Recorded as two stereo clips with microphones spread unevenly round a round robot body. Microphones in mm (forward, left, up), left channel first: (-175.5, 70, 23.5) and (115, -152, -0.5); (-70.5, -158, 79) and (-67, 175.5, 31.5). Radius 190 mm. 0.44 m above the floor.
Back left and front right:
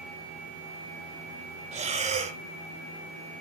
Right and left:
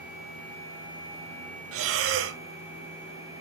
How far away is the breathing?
About 0.6 m.